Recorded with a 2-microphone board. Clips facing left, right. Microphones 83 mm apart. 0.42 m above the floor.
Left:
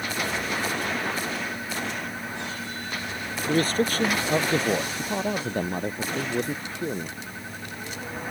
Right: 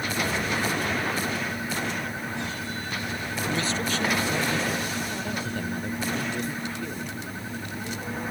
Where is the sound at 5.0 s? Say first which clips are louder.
Left 3 dB; 40° left (ahead or behind).